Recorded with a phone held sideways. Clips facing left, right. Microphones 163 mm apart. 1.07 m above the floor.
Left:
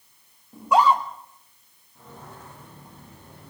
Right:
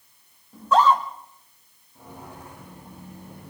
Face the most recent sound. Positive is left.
turn(degrees=-15)  # may be behind; listen again after turning